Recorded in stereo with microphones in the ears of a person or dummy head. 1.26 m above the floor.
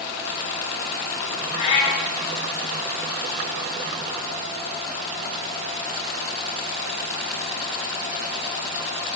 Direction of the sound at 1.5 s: 40° left (ahead or behind).